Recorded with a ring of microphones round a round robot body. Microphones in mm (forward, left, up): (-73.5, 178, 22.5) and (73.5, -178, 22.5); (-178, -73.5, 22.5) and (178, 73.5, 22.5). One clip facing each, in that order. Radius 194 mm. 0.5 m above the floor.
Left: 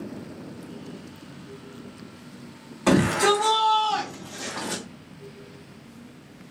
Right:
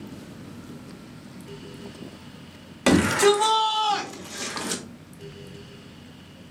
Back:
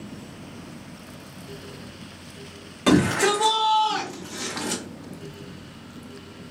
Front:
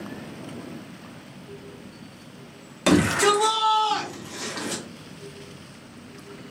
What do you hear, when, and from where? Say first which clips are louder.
2.9 s a shout: right 2 dB, even; 45° right, 1.6 m; by 4.8 s 90° right, 1.3 m